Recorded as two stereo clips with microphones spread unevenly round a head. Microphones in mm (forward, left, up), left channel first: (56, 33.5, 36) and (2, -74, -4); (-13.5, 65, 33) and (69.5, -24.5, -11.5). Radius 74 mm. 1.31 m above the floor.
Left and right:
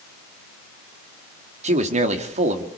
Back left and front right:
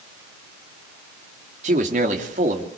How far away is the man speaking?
About 2.5 m.